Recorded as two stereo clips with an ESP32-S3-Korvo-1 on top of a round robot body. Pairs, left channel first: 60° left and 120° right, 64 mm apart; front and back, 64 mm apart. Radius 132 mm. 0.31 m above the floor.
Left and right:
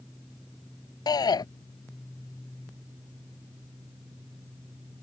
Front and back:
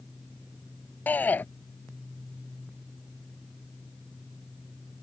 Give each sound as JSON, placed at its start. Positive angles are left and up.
{"t": 1.1, "sound": "a shout", "azimuth_deg": 65}